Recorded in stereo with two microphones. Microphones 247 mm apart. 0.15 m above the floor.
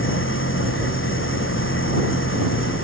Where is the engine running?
55° left (ahead or behind).